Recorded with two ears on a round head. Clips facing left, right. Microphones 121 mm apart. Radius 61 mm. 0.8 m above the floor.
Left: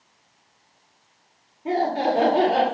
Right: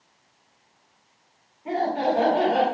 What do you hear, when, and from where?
1.6 s laughter: 40° left (ahead or behind), 3 m